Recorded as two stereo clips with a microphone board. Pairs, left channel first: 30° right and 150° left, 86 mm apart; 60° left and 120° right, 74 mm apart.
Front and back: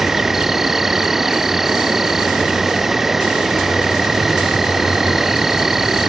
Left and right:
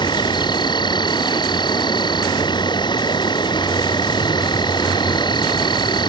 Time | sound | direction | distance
0.0 | an insect | 65° left | ?